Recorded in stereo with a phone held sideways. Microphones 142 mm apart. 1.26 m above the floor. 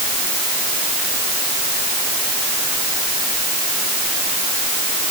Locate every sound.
Only background noise.